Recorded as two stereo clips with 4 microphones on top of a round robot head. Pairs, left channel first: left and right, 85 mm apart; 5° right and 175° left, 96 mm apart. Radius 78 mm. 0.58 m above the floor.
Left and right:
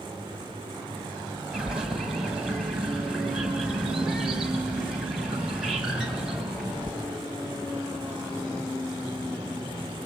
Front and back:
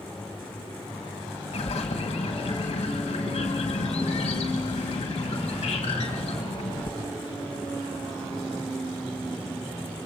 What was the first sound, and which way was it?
A bird, 5° right.